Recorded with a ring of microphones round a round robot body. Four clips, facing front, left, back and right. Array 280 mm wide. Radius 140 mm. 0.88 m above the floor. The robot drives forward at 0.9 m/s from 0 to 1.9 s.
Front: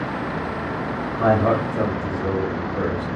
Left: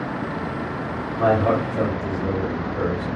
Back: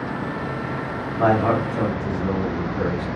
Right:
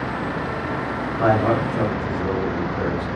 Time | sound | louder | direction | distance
1.2 | a man speaking | even, even | 170° right | 1.9 m